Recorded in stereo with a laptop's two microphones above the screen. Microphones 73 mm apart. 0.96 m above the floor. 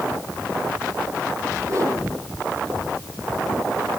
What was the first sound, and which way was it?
A whoosh, 45° right (ahead or behind).